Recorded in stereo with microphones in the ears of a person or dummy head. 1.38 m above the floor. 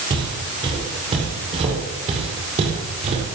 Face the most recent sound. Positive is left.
turn(degrees=-35)  # may be behind; listen again after turning